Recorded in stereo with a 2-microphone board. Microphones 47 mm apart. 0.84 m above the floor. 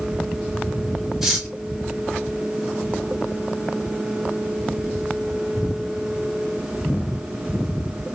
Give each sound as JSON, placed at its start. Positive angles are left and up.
{"t": 1.2, "sound": "cutlery clinking", "side_deg": -5, "distance_m": 2.5}